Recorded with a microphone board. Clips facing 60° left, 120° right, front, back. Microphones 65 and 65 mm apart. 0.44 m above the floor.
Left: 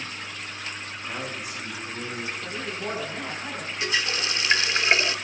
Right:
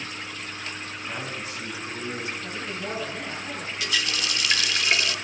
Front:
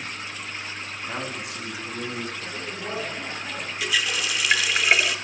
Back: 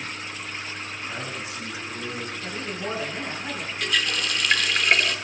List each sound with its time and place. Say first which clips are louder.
1.1 s a man speaking: left 1 dB, front 3 dB; 25° right, 4 m; by 2.3 s 5° right, 4 m
2.4 s a man speaking: left 1 dB, back 2 dB; 110° left, 4.5 m
3.8 s a running tap: left 2 dB, even; 80° left, 0.5 m